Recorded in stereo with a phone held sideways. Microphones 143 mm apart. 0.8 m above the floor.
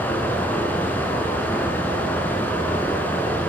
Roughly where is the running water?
Centre.